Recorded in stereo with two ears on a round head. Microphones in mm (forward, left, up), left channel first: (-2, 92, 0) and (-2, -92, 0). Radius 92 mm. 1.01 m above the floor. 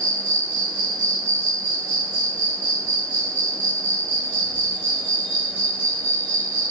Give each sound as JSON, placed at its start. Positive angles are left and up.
{"t": 0.0, "sound": "an insect", "side_deg": -65, "distance_m": 1.3}